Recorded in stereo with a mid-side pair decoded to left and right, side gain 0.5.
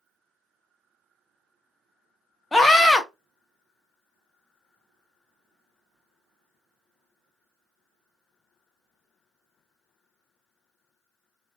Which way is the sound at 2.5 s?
10° left.